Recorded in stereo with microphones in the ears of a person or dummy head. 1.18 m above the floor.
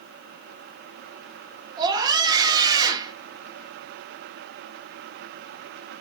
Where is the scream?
20° right (ahead or behind), 1.5 m.